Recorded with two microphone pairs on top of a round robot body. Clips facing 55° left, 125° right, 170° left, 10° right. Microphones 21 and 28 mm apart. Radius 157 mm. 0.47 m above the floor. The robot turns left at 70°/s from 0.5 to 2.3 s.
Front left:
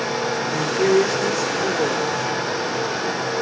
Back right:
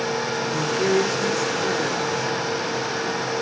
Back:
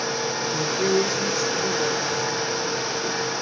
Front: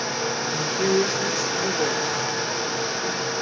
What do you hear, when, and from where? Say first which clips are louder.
0.5 s a woman speaking: front left 3 dB, even; 85° left, 2 m; by 2.1 s 30° right, 2 m